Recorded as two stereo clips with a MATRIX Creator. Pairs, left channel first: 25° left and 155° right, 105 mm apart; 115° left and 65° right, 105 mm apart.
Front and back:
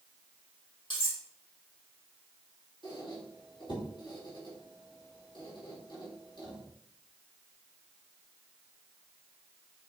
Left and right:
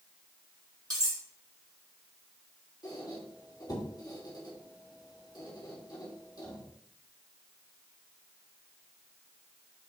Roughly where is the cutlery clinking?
Ahead.